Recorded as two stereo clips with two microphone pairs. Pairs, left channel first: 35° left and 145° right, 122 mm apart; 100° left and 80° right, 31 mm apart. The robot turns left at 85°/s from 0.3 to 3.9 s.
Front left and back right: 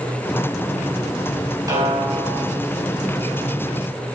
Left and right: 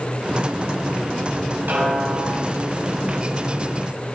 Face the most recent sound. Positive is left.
turn(degrees=90)